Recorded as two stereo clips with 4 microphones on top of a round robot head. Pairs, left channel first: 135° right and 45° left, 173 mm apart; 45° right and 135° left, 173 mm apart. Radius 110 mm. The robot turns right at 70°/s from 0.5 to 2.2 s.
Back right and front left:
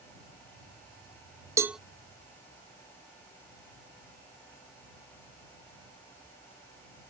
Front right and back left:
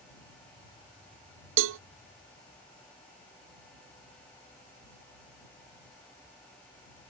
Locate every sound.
1.6 s a cowbell: 120° left; by 1.8 s 135° left